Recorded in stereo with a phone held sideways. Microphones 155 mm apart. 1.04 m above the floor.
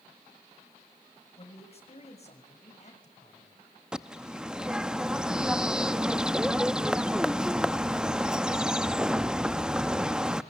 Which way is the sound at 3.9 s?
5° right (ahead or behind).